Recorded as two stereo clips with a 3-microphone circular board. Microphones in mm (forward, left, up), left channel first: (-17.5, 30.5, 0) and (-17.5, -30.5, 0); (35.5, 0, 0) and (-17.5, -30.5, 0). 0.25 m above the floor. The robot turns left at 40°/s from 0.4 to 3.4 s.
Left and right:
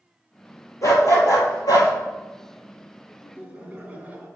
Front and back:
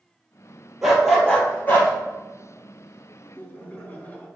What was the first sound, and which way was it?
A dog barking, 125° left.